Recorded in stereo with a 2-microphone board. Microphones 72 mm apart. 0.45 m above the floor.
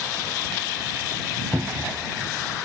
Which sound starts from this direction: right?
A cupboard door, at 1.5 s.